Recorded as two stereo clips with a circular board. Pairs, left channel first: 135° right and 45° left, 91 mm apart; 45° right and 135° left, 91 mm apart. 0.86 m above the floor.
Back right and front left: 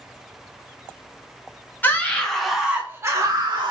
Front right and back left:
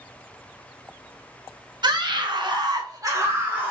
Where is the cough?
I don't hear a cough.